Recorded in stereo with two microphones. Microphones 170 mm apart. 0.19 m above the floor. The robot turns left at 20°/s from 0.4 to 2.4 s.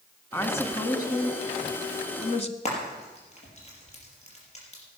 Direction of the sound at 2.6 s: 40° left (ahead or behind).